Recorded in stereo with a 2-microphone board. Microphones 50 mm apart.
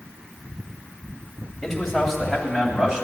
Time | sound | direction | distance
1.6 | a man speaking | 10° left (ahead or behind) | 1.6 m